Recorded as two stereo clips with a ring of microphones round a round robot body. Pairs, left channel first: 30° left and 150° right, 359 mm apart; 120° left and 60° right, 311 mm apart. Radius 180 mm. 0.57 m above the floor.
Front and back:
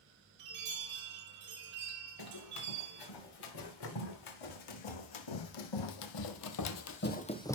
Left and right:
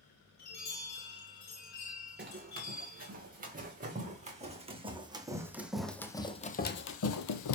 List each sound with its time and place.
0.4 s a chime: 165° left, 6 m
2.2 s running footsteps: straight ahead, 3.5 m; by 7.6 s 110° left, 1.0 m